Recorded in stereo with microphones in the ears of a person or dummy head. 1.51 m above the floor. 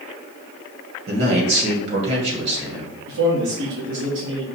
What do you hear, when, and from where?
1.1 s a man speaking: 65° right (ahead or behind), 2 m
3.1 s a man speaking: 75° right (ahead or behind), 2.5 m